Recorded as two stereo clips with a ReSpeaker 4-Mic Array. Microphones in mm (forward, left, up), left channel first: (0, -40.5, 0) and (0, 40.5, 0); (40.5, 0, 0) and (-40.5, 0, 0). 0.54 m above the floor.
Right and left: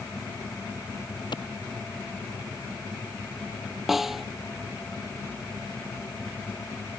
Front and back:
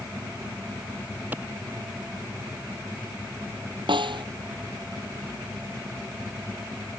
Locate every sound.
1.3 s a clap: 115° right
3.9 s a snare drum: 175° left